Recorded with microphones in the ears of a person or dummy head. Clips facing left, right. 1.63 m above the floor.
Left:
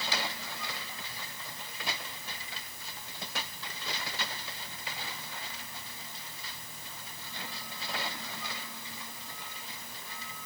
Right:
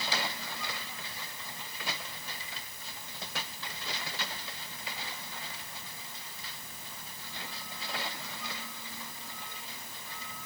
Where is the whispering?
I don't hear whispering.